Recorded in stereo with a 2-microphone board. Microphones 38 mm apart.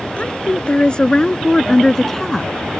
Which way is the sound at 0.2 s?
30° left (ahead or behind).